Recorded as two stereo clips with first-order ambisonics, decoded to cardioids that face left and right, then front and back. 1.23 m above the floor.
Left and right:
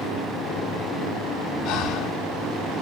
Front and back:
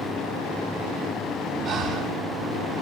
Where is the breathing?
125° left, 1.7 m.